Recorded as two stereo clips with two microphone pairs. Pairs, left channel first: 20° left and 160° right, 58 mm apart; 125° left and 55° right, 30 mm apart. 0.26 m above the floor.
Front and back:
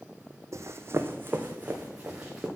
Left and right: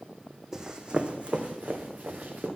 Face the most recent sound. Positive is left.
turn(degrees=-85)